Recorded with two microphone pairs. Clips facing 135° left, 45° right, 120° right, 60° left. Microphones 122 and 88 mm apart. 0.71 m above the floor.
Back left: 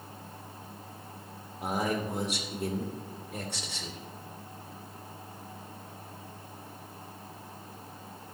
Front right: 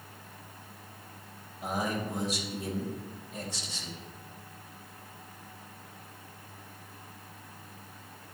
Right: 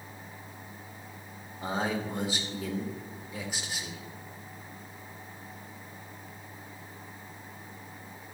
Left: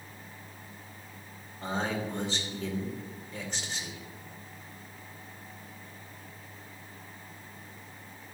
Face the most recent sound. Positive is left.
turn(degrees=160)